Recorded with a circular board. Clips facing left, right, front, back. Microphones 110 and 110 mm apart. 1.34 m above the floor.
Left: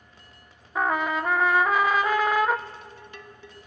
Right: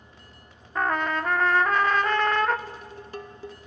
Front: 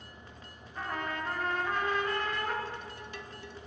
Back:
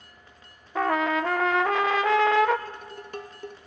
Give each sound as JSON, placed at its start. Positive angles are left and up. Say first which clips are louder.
{"t": 0.8, "sound": "a trumpet", "louder": "left 1 dB, back 12 dB", "azimuth_deg": 175, "distance_m": 0.7}
{"t": 2.7, "sound": "dishes clattering", "louder": "right 4 dB, back 4 dB", "azimuth_deg": -140, "distance_m": 1.0}